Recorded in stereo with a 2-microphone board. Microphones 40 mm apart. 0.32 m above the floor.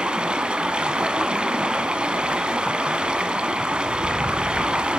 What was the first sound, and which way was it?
Running water, 25° right (ahead or behind).